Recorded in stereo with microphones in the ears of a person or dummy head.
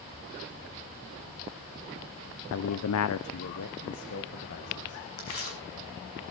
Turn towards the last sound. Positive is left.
turn(degrees=50)  # may be behind; listen again after turning